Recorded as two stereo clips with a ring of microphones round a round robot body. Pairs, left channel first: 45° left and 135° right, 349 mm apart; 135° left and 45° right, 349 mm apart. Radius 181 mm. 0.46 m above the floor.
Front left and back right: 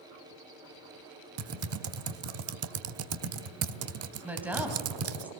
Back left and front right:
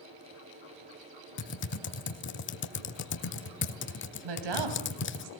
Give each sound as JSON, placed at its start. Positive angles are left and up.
{"t": 1.4, "sound": "typing on a keyboard", "azimuth_deg": -175, "distance_m": 1.1}
{"t": 4.2, "sound": "a woman speaking", "azimuth_deg": -50, "distance_m": 3.5}